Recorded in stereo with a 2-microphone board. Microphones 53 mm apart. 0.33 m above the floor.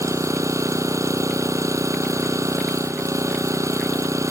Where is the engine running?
85° right.